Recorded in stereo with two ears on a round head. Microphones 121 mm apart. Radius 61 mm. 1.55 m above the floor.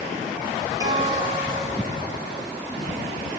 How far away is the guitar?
About 5.5 m.